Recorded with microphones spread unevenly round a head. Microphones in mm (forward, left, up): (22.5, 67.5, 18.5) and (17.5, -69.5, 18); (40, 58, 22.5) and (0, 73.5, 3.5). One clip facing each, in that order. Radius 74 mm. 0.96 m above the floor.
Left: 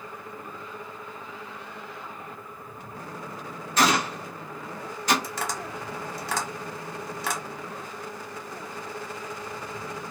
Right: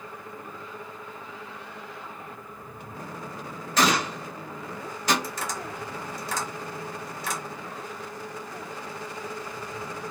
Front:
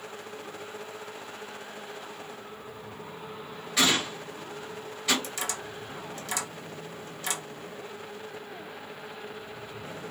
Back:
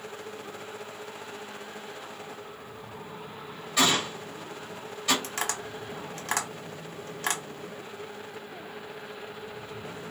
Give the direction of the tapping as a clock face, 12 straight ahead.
8 o'clock.